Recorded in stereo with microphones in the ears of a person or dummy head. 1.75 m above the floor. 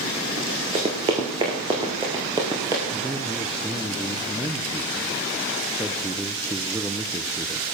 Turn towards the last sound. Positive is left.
turn(degrees=0)  # may be behind; listen again after turning